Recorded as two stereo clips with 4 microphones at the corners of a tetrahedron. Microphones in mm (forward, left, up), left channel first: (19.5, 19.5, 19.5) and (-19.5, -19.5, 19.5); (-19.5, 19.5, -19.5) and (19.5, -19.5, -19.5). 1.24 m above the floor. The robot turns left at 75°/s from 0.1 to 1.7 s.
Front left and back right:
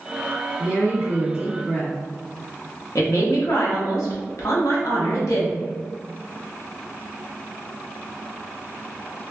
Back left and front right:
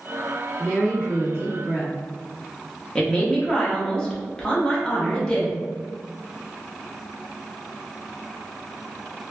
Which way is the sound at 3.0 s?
60° left.